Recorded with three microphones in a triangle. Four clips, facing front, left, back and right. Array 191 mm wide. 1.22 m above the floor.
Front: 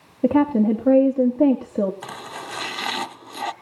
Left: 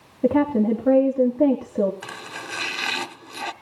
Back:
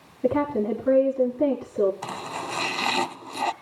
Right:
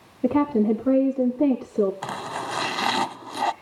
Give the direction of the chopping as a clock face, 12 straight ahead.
3 o'clock.